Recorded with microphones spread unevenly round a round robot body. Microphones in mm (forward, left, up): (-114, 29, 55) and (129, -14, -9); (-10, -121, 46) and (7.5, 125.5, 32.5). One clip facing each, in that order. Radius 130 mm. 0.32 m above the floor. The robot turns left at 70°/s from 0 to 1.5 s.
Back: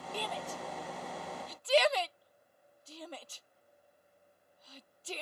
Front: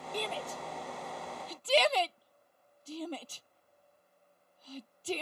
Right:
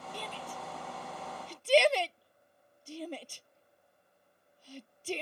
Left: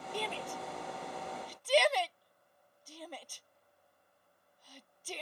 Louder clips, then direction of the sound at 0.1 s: Front 3 dB, left 6 dB; 65° left.